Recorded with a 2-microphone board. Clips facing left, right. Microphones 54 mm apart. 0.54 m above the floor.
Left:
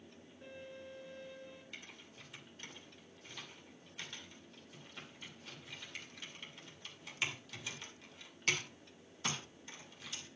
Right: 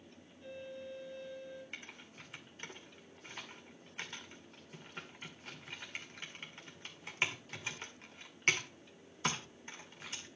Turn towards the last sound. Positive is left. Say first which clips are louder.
# right 3 dB
turn(degrees=-40)  # may be behind; listen again after turning